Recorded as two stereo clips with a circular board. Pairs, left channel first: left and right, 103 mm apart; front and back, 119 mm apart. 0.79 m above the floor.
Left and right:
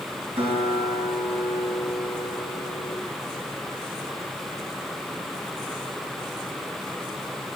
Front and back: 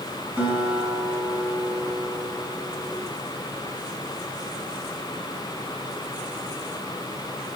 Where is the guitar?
105° right, 4 m.